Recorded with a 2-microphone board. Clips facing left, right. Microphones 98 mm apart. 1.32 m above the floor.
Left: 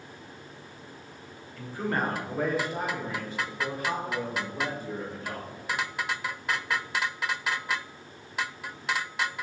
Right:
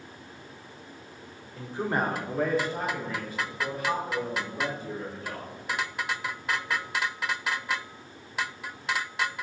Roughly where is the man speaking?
Right.